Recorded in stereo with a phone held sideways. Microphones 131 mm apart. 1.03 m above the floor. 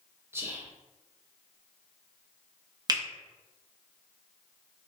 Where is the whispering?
20° right (ahead or behind), 0.8 m.